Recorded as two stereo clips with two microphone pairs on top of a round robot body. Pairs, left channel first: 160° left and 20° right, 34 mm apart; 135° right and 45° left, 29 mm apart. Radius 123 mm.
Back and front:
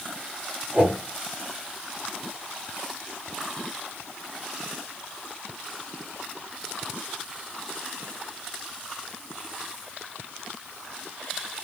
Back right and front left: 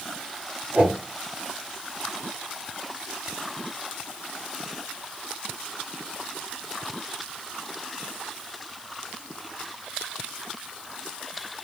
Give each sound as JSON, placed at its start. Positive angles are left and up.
{"t": 0.7, "sound": "a whoosh", "azimuth_deg": 5, "distance_m": 1.8}